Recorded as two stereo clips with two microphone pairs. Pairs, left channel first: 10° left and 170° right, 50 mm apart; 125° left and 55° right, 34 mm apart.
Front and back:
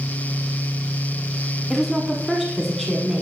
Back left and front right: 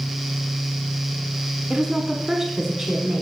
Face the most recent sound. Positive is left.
turn(degrees=-85)